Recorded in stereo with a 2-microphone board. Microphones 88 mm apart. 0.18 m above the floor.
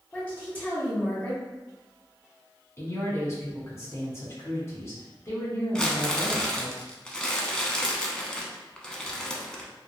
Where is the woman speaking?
15° left (ahead or behind), 1.2 m.